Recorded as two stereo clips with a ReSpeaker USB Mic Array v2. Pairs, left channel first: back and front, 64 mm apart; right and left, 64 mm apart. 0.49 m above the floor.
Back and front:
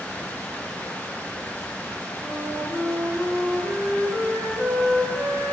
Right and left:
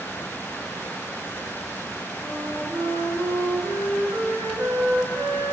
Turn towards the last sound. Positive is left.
turn(degrees=75)